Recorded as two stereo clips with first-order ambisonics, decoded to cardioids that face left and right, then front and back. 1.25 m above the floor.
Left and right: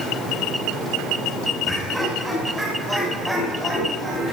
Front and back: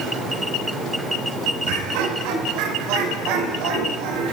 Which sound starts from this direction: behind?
Laughter, at 1.6 s.